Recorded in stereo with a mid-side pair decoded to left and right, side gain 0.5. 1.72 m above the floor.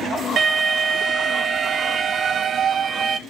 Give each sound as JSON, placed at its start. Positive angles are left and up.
{"t": 0.4, "sound": "an alarm", "azimuth_deg": -45, "distance_m": 1.8}